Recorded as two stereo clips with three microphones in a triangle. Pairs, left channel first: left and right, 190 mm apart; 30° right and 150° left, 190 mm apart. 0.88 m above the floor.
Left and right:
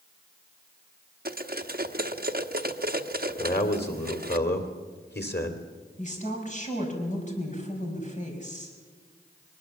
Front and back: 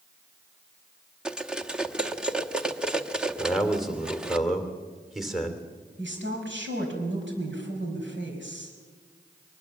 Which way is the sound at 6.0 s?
140° left.